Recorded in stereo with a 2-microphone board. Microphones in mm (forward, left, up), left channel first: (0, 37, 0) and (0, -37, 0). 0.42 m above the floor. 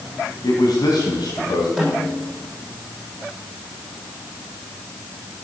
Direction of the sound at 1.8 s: Centre (ahead or behind).